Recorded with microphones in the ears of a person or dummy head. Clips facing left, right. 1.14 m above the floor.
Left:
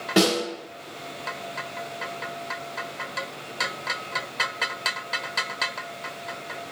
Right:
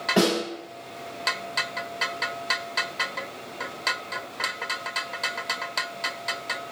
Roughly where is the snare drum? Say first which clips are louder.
Left 1 dB; left.